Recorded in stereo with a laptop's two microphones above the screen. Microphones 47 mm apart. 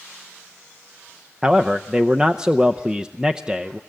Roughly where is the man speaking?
Centre.